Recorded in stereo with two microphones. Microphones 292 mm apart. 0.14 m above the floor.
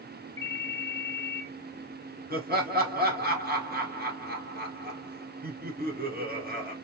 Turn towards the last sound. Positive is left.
turn(degrees=-35)  # may be behind; listen again after turning